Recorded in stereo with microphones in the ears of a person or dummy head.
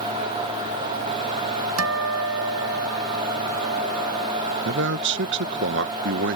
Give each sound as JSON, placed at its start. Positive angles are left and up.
{"t": 1.8, "sound": "a guitar", "side_deg": -90}
{"t": 4.7, "sound": "a man speaking", "side_deg": -60}